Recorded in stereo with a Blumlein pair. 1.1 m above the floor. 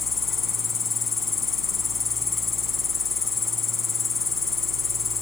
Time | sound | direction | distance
0.0 | an insect | 15° left | ?